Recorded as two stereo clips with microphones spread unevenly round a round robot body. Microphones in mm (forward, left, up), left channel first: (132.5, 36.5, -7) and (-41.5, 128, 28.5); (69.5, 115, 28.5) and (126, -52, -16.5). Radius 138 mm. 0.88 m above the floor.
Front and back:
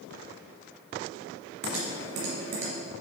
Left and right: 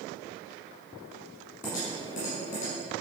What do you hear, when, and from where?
1.6 s typing on a keyboard: 165° left, 2.5 m